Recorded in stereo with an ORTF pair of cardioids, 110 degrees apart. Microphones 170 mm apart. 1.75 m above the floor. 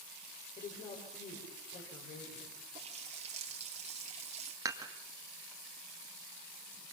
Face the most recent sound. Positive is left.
turn(degrees=-20)